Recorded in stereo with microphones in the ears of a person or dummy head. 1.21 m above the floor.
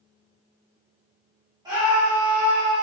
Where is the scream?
20° right (ahead or behind), 2 m; by 2.8 s 15° right (ahead or behind), 2.5 m.